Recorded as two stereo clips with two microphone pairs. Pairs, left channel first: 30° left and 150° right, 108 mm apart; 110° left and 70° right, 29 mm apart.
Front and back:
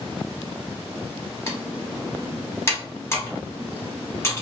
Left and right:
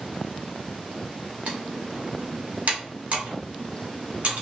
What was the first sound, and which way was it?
Typing on a keyboard, 35° right.